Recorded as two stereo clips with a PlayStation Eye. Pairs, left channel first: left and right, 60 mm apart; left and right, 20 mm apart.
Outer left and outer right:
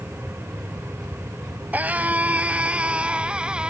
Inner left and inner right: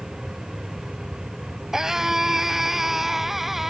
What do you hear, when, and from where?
1.7 s a scream: 25° right (ahead or behind); by 3.7 s 15° right (ahead or behind)